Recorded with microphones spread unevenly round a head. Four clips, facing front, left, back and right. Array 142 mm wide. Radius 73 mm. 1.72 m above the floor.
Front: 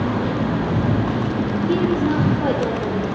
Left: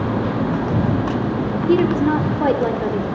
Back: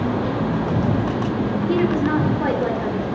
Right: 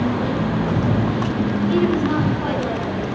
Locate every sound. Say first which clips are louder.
1.7 s a woman speaking: left 4 dB, even; 95° left, 4.5 m; by 3.0 s 80° left, 5 m